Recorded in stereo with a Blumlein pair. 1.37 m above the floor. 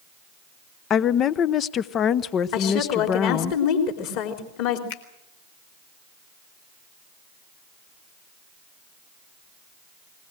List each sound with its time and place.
0.9 s a woman speaking: 30° left, 0.7 m
2.5 s a woman speaking: 45° left, 3.5 m
4.9 s a finger snap: 55° left, 2.5 m